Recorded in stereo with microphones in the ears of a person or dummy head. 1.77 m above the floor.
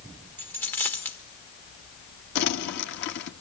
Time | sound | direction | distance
0.4 | a dropped coin | 15° left (ahead or behind) | 1.8 m
2.4 | crumpling | 55° left (ahead or behind) | 1.8 m